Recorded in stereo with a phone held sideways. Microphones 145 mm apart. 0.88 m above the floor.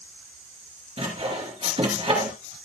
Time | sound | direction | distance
1.0 | sawing | 40° right (ahead or behind) | 2.5 m